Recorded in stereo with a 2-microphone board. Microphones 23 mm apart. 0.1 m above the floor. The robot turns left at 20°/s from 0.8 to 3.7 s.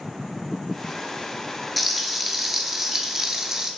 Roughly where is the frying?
Ahead.